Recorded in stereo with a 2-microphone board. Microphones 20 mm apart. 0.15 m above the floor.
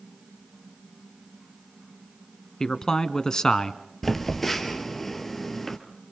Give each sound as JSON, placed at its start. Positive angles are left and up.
{"t": 2.6, "sound": "a man speaking", "side_deg": 30, "distance_m": 1.2}
{"t": 4.0, "sound": "a phone buzzing", "side_deg": 15, "distance_m": 2.0}